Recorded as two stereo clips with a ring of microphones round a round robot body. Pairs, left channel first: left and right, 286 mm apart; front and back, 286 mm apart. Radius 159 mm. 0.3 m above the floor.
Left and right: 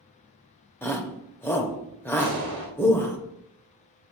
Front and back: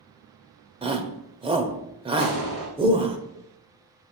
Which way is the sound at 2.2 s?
155° left.